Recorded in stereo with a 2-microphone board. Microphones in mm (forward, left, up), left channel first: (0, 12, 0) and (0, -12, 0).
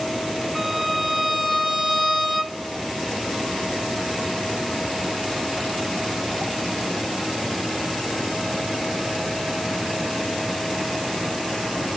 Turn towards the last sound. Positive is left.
turn(degrees=-10)  # may be behind; listen again after turning